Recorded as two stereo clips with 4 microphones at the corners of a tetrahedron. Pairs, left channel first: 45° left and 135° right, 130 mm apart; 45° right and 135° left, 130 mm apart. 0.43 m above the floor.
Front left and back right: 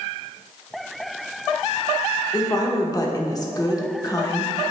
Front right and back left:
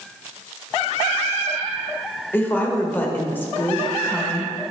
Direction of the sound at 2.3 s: 15° left.